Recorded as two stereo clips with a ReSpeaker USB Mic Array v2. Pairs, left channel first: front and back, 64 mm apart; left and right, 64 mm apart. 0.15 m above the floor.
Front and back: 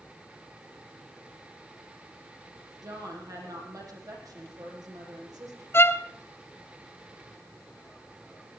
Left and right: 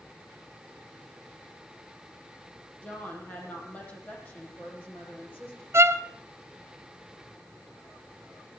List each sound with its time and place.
2.8 s a woman speaking: 155° left, 7 m
5.7 s a violin: 45° right, 1.0 m